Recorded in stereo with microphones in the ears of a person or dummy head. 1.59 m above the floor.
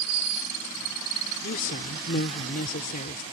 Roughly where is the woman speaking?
Left.